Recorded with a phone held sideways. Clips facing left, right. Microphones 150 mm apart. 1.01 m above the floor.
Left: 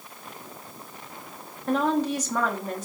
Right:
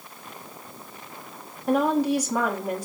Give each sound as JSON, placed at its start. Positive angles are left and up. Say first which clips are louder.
{"t": 1.7, "sound": "a woman speaking", "louder": "right 2 dB", "side_deg": -10, "distance_m": 2.0}